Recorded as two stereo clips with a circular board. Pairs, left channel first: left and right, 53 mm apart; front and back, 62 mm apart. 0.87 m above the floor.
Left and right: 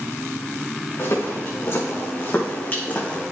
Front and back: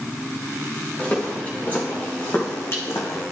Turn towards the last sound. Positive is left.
turn(degrees=25)